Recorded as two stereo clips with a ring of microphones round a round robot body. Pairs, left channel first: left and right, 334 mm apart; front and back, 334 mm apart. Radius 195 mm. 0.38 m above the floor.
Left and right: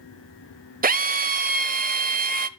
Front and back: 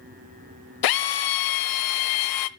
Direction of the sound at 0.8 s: 25° right.